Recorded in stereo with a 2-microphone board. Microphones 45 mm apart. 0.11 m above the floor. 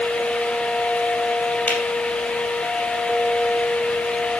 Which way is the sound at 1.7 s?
35° left (ahead or behind).